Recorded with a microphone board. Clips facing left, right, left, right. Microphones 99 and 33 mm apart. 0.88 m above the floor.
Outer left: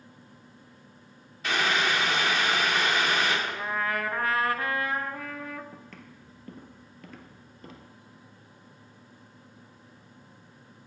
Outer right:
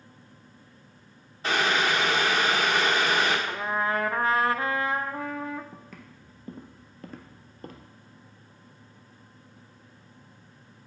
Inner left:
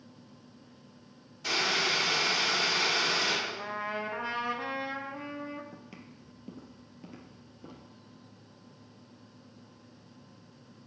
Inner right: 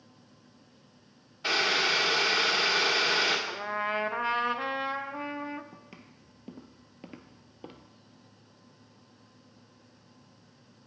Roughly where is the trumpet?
Right.